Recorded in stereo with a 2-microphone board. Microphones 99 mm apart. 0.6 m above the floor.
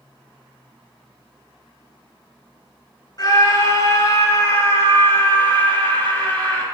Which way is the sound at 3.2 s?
40° left (ahead or behind).